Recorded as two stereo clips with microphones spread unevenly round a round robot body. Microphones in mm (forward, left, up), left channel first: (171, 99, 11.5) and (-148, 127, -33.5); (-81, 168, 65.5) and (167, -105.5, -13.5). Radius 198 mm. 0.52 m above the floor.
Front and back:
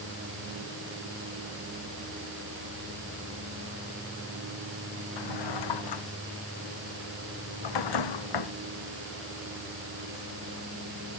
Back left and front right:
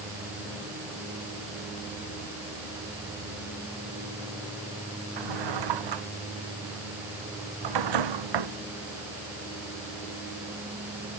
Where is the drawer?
30° right.